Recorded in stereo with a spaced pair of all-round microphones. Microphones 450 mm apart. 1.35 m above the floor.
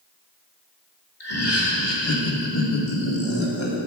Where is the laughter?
60° left (ahead or behind), 2.0 m; by 3.8 s 75° left (ahead or behind), 1.8 m.